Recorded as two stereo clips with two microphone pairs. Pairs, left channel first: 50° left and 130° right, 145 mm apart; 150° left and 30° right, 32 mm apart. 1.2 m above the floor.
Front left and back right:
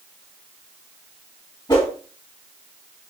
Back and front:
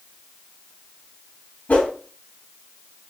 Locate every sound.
1.7 s a whoosh: 105° left, 1.9 m